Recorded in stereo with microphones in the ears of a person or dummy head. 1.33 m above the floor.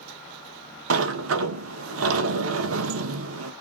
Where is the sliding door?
80° right, 0.6 m.